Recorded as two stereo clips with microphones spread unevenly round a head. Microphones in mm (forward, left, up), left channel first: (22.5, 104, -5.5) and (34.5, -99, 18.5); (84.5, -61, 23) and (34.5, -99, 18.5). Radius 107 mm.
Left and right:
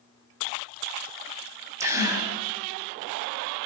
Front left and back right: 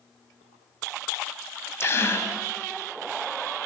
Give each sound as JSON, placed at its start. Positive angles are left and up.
{"t": 1.8, "sound": "a gasp", "azimuth_deg": -10, "distance_m": 5.5}